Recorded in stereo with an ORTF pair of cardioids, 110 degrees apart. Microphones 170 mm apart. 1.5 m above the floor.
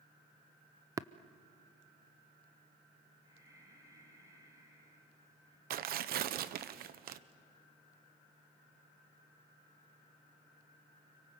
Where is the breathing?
20° right, 6.5 m.